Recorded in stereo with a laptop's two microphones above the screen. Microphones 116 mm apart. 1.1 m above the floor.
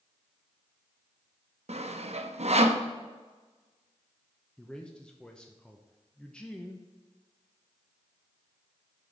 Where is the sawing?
70° right (ahead or behind), 0.6 m.